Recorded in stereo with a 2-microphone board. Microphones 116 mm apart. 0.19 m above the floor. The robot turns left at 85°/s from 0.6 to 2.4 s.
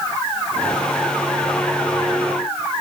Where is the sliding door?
I don't hear a sliding door.